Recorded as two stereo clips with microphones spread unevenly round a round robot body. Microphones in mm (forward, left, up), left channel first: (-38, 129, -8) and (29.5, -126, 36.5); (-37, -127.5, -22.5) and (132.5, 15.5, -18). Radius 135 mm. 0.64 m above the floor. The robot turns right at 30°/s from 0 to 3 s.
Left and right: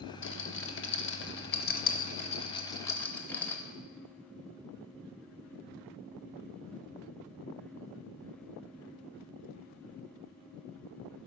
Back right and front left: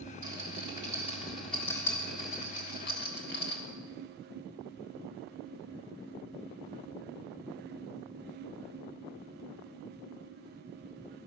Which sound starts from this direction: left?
A rattle, at 0.2 s.